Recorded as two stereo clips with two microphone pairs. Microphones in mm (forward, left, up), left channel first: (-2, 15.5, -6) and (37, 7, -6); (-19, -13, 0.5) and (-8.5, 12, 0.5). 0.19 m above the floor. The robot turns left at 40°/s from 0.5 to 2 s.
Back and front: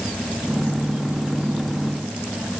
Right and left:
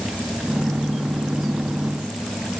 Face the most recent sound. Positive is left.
No sound to turn to.